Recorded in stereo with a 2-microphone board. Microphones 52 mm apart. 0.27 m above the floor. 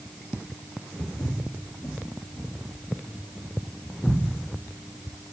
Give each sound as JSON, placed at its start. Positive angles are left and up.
{"t": 1.0, "sound": "footsteps", "side_deg": 85, "distance_m": 1.7}